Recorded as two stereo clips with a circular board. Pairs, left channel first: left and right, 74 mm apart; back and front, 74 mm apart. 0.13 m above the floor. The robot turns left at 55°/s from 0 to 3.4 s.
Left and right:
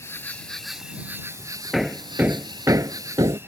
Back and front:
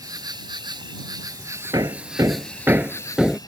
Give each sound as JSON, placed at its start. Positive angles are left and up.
{"t": 0.0, "sound": "an insect", "azimuth_deg": 40}
{"t": 1.7, "sound": "hammering", "azimuth_deg": 0}